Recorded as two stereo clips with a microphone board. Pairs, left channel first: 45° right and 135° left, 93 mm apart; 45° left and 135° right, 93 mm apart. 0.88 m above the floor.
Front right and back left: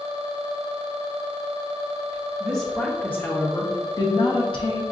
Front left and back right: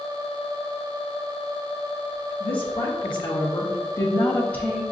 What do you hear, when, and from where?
2.4 s a woman speaking: 40° left, 1.2 m; by 4.8 s 35° right, 1.1 m